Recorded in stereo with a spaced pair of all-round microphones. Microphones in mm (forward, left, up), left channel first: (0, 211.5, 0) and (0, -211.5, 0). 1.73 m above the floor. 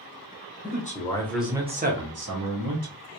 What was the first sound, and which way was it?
A man speaking, 20° left (ahead or behind).